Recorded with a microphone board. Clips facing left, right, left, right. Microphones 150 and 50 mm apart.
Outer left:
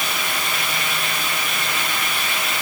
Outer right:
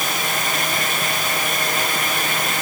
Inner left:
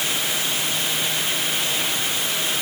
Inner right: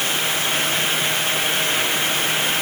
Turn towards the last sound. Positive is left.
No sound to turn to.